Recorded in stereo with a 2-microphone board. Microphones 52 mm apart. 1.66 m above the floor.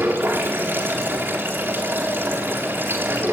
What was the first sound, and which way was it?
Running water, 45° right (ahead or behind).